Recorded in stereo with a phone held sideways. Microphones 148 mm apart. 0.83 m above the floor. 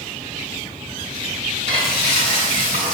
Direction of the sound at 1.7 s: 50° right (ahead or behind).